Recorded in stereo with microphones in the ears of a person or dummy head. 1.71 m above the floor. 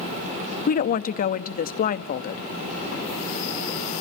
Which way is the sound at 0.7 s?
45° left (ahead or behind).